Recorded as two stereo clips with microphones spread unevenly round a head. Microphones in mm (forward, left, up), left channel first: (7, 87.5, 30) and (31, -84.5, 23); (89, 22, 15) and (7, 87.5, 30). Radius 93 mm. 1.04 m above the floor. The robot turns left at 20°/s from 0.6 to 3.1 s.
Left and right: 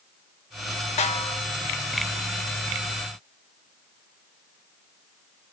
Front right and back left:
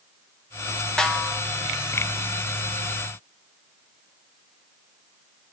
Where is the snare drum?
45° left, 1.1 m; by 1.4 s 35° left, 1.1 m.